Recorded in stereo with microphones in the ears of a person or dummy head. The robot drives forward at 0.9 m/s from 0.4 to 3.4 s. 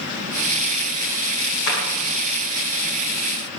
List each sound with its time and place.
1.7 s a clap: 55° left (ahead or behind), 7.5 m; by 1.8 s 50° left (ahead or behind), 7.5 m